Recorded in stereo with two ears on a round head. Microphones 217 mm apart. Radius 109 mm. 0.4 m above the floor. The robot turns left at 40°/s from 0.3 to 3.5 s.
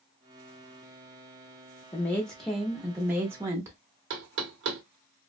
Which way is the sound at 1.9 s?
10° left (ahead or behind).